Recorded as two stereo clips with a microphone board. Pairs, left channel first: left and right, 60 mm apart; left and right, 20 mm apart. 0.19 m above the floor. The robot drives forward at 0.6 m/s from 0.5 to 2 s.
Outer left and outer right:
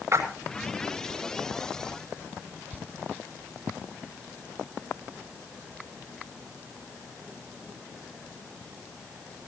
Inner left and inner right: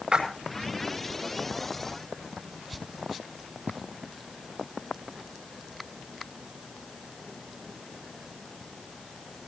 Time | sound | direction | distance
0.1 | a splash | 60° right (ahead or behind) | 6 m